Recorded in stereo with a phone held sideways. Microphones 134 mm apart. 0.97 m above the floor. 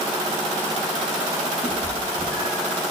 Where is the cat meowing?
35° left (ahead or behind), 8 m; by 2.8 s 40° left (ahead or behind), 8 m.